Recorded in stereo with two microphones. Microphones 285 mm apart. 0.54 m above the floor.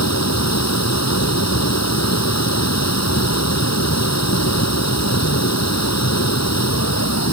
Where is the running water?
65° left (ahead or behind).